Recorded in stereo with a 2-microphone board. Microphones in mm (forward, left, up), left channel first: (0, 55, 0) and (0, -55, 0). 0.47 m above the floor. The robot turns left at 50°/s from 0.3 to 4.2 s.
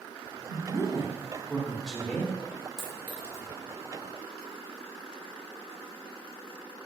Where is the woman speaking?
110° right, 1.1 m; by 2.3 s 160° left, 1.1 m.